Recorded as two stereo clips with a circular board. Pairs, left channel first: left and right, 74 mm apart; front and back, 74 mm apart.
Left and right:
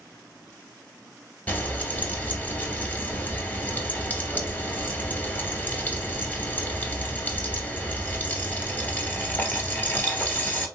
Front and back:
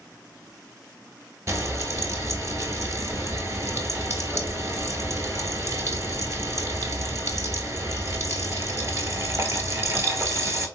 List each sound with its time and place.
1.5 s frying: 145° left, 0.9 m